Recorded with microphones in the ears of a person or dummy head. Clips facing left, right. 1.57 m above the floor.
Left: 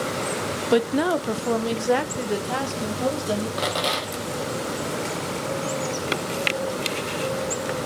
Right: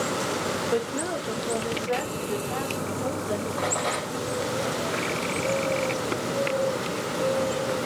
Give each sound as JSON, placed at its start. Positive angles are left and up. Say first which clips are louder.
{"t": 0.7, "sound": "a woman speaking", "louder": "left 10 dB", "side_deg": 90, "distance_m": 0.7}
{"t": 3.6, "sound": "a rattle", "louder": "left 2 dB", "side_deg": 50, "distance_m": 2.5}